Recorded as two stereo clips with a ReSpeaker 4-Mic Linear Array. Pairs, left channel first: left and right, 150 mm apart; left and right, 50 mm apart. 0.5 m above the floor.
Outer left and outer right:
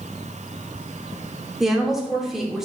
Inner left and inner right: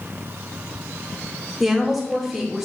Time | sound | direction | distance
1.6 | a woman speaking | 5° right (ahead or behind) | 0.9 m